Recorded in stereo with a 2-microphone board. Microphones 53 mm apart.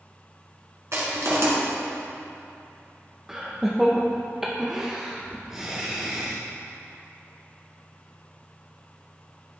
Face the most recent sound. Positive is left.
turn(degrees=-10)  # may be behind; listen again after turning